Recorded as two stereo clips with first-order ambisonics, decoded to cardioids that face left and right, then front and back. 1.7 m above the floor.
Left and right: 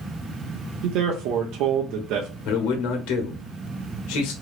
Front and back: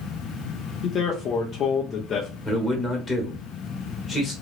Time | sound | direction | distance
0.8 | a man speaking | 55° right | 0.7 m
2.5 | a man speaking | 75° left | 1.3 m